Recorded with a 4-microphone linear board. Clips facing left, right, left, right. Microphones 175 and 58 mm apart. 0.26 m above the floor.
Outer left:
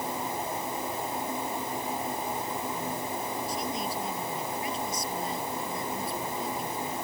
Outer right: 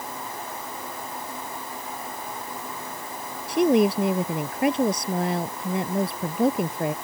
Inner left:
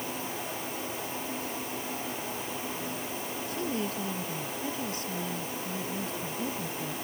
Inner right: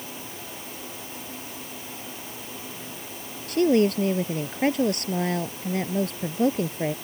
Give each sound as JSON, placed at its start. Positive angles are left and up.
{"t": 3.5, "sound": "a woman speaking", "side_deg": -75}